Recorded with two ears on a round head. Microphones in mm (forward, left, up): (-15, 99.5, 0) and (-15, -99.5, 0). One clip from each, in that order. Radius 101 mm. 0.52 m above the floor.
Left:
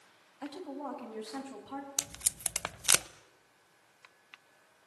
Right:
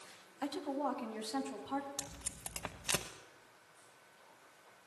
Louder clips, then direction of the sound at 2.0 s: Left 9 dB; 60° left (ahead or behind).